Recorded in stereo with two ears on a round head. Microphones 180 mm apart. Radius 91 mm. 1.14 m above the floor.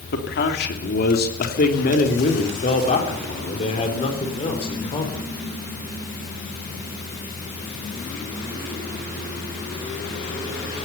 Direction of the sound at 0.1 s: 60° left (ahead or behind).